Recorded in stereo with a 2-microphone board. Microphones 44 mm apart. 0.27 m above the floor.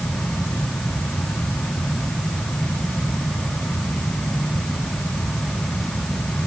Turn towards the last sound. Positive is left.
No sound to turn to.